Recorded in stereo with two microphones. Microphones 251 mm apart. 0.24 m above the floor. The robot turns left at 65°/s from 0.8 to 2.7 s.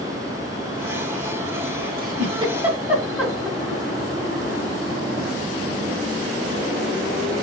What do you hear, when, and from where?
2.0 s a giggle: 40° right (ahead or behind), 1.6 m; by 3.8 s 5° right (ahead or behind), 1.6 m